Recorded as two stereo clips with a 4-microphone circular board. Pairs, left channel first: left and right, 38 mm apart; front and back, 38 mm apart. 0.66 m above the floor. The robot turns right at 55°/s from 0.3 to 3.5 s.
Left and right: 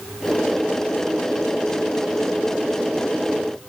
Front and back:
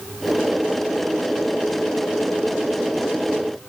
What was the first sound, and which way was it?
Only background noise.